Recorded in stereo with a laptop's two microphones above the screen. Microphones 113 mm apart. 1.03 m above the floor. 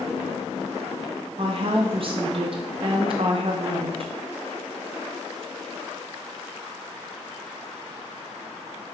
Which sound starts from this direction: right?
A woman speaking, at 1.4 s.